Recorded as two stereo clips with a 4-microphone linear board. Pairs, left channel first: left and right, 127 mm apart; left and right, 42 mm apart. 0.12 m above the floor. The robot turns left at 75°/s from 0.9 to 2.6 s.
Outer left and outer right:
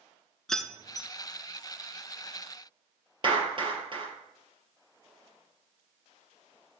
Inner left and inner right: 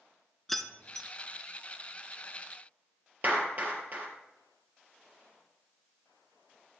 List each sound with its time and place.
0.5 s keys jangling: 5° left (ahead or behind), 0.9 m; by 1.1 s 5° right (ahead or behind), 0.9 m
3.2 s a clap: 40° right (ahead or behind), 3 m